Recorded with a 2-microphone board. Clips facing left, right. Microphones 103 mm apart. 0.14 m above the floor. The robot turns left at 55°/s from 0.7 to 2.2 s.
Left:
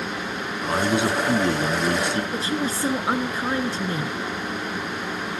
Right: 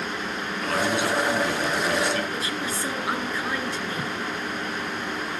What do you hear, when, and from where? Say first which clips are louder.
0.6 s a man speaking: left 3 dB; 20° left (ahead or behind), 1.5 m
2.3 s a woman speaking: left 4 dB; 30° left (ahead or behind), 1.8 m